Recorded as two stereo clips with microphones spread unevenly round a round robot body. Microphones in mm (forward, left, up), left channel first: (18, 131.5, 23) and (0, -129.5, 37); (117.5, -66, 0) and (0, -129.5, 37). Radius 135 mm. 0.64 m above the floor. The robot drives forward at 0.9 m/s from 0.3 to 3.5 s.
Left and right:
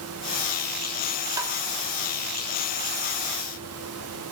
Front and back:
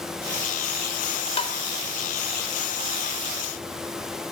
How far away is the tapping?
About 1.3 m.